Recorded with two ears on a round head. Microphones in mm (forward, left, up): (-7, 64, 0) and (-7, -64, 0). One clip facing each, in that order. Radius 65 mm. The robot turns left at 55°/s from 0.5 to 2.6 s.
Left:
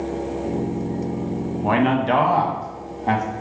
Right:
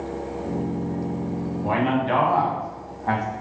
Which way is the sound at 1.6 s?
80° left.